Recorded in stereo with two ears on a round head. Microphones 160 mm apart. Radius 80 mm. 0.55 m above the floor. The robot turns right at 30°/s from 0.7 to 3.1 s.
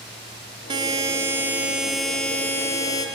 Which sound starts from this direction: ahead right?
A buzzer, at 0.7 s.